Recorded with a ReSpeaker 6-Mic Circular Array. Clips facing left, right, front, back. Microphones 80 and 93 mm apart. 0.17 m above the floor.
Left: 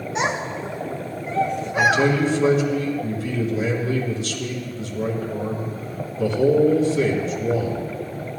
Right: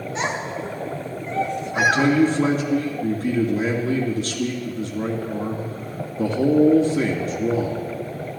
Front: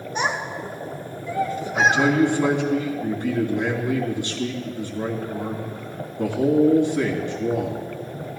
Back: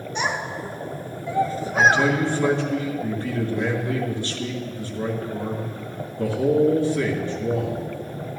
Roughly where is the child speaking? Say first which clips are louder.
Left 2 dB, front 1 dB; ahead left.